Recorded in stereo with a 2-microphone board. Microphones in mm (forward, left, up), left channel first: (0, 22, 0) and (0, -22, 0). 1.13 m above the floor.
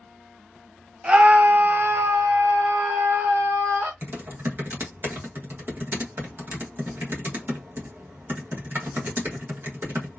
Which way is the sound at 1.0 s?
20° right (ahead or behind).